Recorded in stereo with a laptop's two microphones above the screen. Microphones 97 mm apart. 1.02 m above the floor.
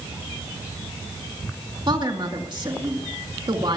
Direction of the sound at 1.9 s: 50° right (ahead or behind).